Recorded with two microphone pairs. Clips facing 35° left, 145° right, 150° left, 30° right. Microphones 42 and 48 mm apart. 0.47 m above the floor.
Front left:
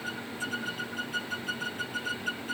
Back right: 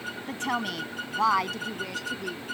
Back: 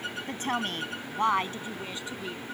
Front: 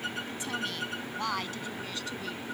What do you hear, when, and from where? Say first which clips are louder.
0.3 s a woman speaking: back right 8 dB, back 4 dB; 170° right; by 2.5 s 135° right